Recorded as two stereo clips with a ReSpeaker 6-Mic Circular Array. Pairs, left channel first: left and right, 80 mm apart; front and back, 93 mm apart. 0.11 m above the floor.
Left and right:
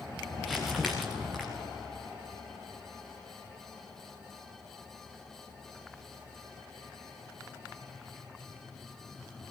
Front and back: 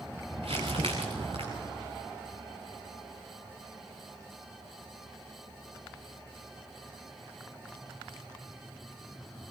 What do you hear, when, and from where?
0.4 s crumpling: straight behind, 4 m